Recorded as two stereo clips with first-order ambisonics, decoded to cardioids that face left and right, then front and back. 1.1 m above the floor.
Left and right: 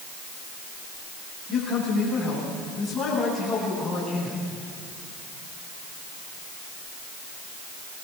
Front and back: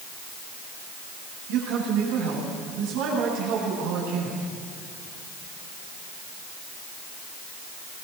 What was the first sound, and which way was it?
A man speaking, 175° left.